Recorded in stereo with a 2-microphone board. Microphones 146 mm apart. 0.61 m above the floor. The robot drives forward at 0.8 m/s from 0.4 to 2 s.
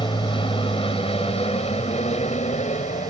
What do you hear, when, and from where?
0.0 s an aircraft: 35° left (ahead or behind); by 3.1 s 50° left (ahead or behind)